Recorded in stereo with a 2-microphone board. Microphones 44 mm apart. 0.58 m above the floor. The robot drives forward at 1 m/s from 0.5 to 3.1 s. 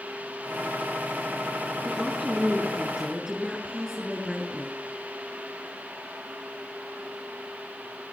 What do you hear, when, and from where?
1.9 s a woman speaking: centre (ahead or behind), 8 m